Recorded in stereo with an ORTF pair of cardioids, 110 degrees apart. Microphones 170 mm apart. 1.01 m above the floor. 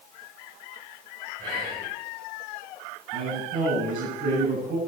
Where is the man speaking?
50° right, 9 m.